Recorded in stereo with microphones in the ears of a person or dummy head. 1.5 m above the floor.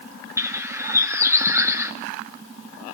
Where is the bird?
20° right (ahead or behind), 1.2 m.